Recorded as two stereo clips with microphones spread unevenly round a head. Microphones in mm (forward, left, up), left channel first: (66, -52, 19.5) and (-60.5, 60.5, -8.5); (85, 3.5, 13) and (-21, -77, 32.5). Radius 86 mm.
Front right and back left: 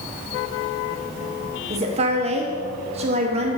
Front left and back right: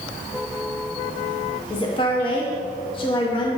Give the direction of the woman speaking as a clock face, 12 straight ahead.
9 o'clock.